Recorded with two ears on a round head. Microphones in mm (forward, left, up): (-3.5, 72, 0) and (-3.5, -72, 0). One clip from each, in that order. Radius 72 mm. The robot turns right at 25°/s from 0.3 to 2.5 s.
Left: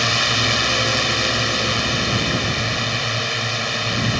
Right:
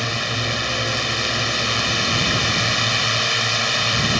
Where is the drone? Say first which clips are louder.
Left 5 dB; 155° left; by 4.2 s 150° right.